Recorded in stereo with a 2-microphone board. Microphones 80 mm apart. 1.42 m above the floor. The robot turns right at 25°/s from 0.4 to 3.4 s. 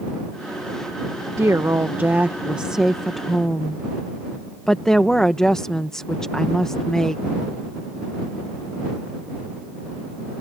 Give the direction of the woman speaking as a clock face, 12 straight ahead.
1 o'clock.